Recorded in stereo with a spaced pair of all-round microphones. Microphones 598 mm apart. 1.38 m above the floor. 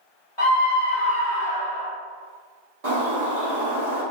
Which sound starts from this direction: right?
A bird, at 2.8 s.